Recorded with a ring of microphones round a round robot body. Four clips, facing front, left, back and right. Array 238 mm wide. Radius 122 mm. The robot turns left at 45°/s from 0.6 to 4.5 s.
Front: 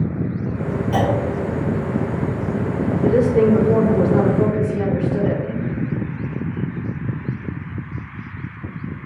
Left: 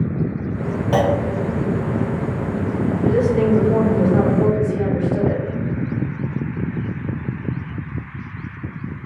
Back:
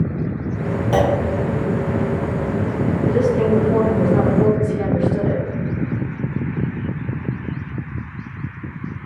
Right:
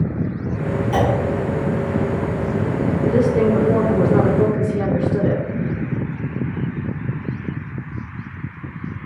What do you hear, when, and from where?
0.9 s a clunk: 125° left, 2.5 m; by 1.2 s 115° left, 2.5 m
3.0 s a woman speaking: 5° right, 2.5 m; by 5.5 s 75° right, 2.5 m